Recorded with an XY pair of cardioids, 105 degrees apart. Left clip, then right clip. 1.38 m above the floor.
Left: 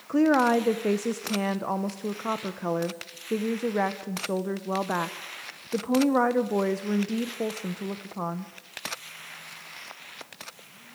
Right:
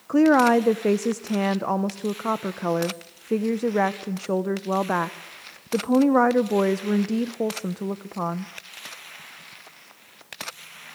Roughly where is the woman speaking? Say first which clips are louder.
Right 4 dB; ahead right.